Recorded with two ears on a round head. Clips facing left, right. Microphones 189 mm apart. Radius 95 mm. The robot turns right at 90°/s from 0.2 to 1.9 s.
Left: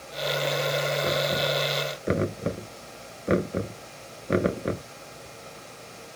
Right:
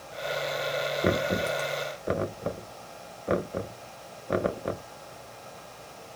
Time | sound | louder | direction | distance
1.0 | knocking | even | 50° right (ahead or behind) | ?